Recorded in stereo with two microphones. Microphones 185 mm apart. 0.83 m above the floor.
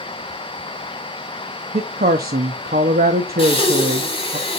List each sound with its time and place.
1.7 s a woman speaking: 65° right (ahead or behind), 0.8 m
3.4 s breathing: 35° left (ahead or behind), 1.9 m